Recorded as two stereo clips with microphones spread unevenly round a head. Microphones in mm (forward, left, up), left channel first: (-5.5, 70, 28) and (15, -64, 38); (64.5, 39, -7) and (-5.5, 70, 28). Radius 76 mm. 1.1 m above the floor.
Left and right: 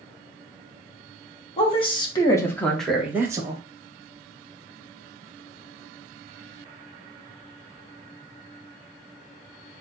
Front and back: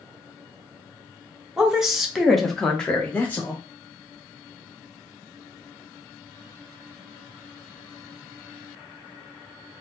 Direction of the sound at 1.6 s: 60° left.